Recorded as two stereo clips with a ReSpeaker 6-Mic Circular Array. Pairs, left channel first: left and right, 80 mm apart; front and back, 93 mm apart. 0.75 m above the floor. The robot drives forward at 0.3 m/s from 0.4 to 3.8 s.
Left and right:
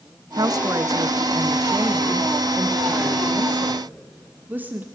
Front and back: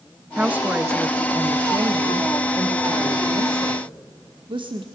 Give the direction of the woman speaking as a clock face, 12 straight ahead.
4 o'clock.